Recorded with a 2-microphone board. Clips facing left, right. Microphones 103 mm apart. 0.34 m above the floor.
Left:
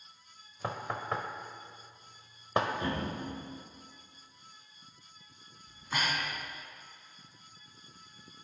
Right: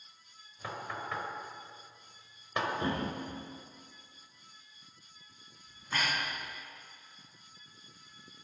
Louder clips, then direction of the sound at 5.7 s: Left 1 dB; 15° left (ahead or behind).